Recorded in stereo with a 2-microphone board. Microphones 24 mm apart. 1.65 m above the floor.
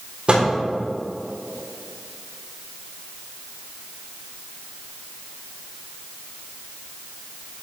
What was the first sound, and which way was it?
A microwave, 40° right (ahead or behind).